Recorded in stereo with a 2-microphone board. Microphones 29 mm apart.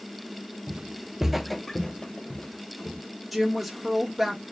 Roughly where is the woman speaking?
Centre.